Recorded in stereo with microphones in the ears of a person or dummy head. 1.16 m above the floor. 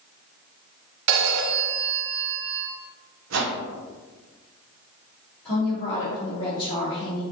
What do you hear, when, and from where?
1.1 s a phone ringing: 60° right (ahead or behind), 1.0 m
3.3 s a whoosh: 75° right (ahead or behind), 0.9 m
5.5 s a woman speaking: 45° left (ahead or behind), 1.9 m